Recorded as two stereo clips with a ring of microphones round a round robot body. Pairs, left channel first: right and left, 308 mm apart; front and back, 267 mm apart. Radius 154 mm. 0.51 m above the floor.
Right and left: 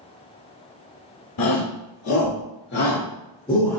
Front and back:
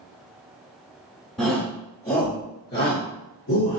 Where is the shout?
85° right, 1.3 m; by 3.8 s 10° right, 1.2 m.